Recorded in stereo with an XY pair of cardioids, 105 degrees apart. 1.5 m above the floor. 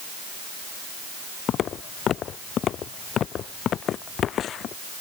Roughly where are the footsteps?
Ahead left.